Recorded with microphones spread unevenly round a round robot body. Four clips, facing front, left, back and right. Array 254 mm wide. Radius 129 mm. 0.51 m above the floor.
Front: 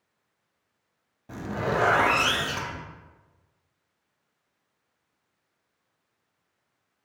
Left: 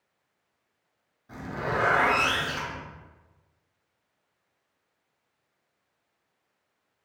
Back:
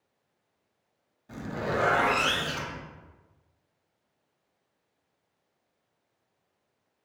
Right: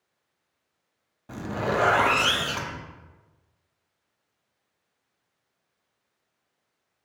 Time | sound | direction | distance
1.3 | a zipper | 50° right | 0.5 m